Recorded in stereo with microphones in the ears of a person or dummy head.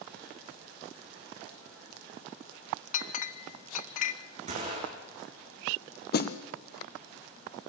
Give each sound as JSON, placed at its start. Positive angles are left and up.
{"t": 2.9, "sound": "a clink", "side_deg": 35, "distance_m": 0.6}
{"t": 4.5, "sound": "a gunshot", "side_deg": -45, "distance_m": 6.5}
{"t": 6.1, "sound": "a snare drum", "side_deg": 50, "distance_m": 1.4}